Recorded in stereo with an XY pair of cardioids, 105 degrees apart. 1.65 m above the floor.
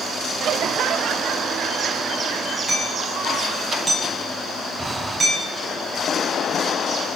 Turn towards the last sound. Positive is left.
turn(degrees=-20)